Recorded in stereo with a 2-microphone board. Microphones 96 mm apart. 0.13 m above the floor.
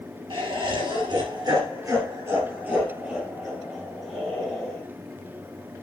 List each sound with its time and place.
0.3 s laughter: 65° right (ahead or behind), 2.5 m; by 4.8 s 5° left (ahead or behind), 3.5 m